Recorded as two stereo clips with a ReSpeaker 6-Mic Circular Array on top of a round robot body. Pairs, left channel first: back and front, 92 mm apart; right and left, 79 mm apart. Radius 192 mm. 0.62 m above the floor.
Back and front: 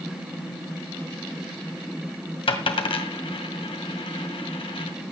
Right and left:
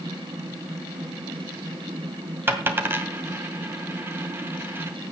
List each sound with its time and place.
2.5 s a dropped coin: 155° left, 1.9 m